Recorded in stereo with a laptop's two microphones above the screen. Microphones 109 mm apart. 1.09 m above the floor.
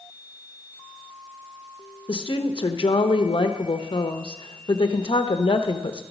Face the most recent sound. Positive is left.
turn(degrees=50)  # may be behind; listen again after turning